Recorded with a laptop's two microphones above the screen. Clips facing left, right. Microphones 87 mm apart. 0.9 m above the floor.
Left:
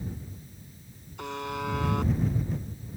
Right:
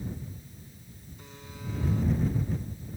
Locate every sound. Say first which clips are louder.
1.2 s a buzzer: left 14 dB; 85° left